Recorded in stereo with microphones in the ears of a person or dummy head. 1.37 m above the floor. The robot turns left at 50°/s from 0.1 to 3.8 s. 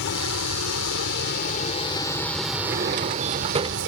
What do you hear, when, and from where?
0.0 s a vehicle: 115° left; by 3.9 s 70° right
2.6 s a drawer: 85° right; by 3.8 s 145° right